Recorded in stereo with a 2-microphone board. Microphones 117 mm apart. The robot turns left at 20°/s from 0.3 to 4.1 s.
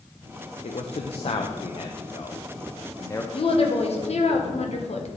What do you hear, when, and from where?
0.6 s a man speaking: 65° left (ahead or behind), 0.5 m; by 3.2 s 25° left (ahead or behind), 0.5 m
3.3 s a woman speaking: 50° left (ahead or behind), 1.1 m; by 5.1 s 65° left (ahead or behind), 1.1 m